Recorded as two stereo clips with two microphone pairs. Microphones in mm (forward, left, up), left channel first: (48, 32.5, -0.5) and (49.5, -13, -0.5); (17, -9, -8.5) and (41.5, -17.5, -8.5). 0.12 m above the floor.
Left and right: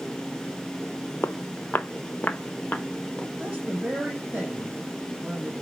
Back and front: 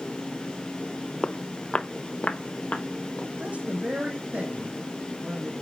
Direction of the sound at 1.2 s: 105° left.